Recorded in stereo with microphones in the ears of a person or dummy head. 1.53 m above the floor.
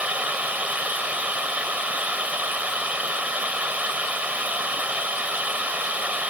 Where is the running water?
10° right (ahead or behind).